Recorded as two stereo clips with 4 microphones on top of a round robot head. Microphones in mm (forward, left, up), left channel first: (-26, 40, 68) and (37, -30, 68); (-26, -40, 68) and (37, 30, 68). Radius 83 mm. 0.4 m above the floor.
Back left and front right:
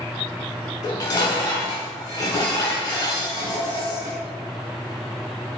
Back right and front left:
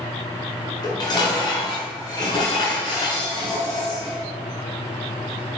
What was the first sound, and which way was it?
Dishes clattering, straight behind.